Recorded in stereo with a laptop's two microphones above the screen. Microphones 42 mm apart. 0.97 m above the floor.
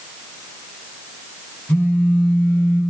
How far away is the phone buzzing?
About 1.5 m.